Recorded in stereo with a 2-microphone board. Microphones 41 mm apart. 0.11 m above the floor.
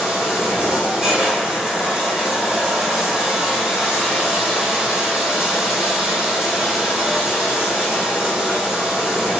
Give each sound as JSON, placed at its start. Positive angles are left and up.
{"t": 0.0, "sound": "running water", "side_deg": -10, "distance_m": 1.9}